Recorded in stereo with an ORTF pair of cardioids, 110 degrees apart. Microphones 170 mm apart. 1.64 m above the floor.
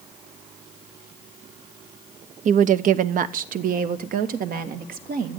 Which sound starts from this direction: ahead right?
A woman speaking, at 2.5 s.